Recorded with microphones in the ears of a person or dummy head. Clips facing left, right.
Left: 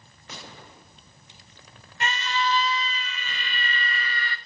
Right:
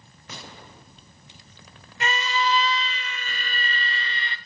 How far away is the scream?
About 1.2 m.